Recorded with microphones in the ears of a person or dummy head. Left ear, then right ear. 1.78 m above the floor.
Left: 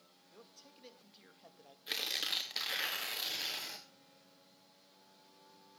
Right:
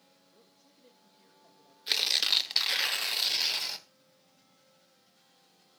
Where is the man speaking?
55° left (ahead or behind), 2 m.